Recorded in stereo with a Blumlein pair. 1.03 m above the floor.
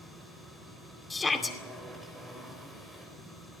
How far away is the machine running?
About 4.5 m.